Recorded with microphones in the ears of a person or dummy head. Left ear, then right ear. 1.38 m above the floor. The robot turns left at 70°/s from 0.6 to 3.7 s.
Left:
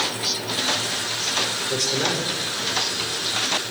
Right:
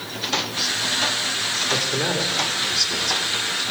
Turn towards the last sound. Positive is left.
turn(degrees=-120)